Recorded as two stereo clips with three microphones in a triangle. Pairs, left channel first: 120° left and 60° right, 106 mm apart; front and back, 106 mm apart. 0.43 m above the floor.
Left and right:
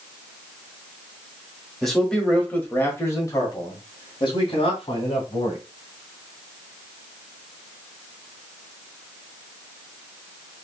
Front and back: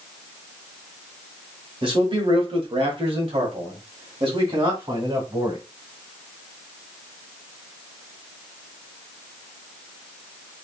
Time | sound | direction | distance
1.8 | a man speaking | 150° right | 1.7 m